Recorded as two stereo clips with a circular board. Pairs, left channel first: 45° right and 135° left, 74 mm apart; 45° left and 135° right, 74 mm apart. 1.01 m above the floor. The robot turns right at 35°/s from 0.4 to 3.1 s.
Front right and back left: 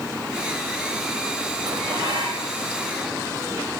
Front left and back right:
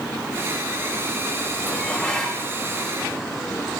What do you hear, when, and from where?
1.7 s dishes clattering: 110° left, 3 m; by 2.5 s 140° left, 3 m